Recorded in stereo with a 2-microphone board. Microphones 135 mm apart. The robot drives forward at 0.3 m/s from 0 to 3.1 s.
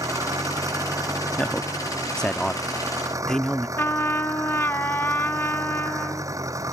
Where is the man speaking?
5° left (ahead or behind).